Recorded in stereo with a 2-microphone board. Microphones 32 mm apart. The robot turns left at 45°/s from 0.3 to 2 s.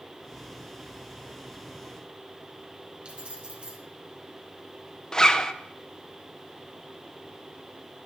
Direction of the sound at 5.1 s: 20° left (ahead or behind).